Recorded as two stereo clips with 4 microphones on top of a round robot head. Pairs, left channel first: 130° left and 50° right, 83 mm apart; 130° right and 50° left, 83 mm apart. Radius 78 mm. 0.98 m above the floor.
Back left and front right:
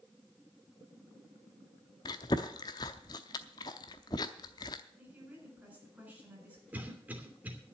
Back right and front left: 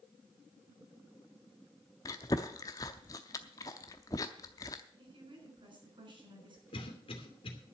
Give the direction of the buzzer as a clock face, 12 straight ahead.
I don't hear a buzzer.